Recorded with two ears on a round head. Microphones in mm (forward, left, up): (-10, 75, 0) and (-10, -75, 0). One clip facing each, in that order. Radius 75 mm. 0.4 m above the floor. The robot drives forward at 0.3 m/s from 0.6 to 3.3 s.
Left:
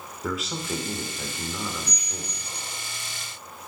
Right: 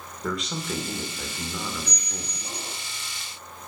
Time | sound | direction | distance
0.2 | a man speaking | 5° left (ahead or behind) | 0.8 m
1.9 | a squeak | 55° right (ahead or behind) | 0.5 m